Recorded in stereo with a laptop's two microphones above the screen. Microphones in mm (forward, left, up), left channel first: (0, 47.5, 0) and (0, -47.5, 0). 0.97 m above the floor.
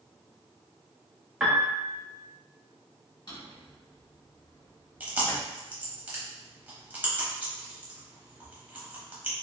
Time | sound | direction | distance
1.4 | a piano | 5° right (ahead or behind) | 0.7 m
3.3 | a drawer | 45° left (ahead or behind) | 1.3 m
5.0 | chewing | 15° right (ahead or behind) | 0.8 m